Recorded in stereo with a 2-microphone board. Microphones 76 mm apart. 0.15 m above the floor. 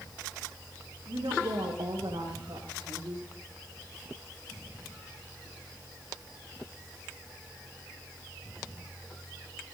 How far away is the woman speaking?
About 9.5 m.